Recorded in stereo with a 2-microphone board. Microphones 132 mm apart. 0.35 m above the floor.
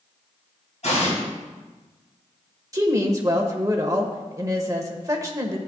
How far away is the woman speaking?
About 1.1 m.